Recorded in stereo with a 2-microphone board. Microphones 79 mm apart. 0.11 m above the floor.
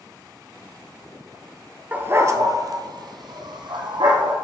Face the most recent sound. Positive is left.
turn(degrees=-75)  # may be behind; listen again after turning